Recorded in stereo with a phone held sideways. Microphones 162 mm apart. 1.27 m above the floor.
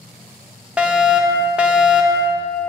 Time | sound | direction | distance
0.8 | a fire alarm | 10° right (ahead or behind) | 0.9 m